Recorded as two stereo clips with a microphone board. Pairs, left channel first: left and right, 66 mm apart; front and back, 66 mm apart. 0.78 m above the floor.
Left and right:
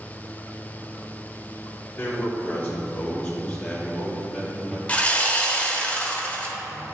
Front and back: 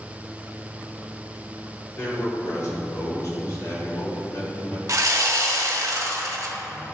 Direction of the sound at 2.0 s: 35° left.